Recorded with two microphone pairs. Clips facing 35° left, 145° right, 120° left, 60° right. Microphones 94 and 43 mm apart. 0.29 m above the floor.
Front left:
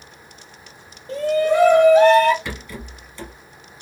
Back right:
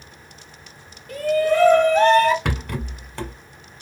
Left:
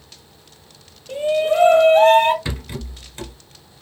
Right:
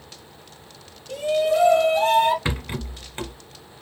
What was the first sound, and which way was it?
A shout, 80° left.